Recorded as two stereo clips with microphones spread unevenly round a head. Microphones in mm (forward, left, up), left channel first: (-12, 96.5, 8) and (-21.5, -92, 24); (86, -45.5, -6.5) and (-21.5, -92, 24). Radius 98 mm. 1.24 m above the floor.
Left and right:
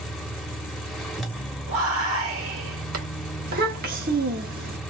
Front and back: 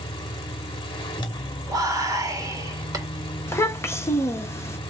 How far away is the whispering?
About 1.7 m.